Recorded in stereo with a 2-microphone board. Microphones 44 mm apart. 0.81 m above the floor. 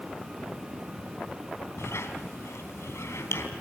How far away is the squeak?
About 3.5 m.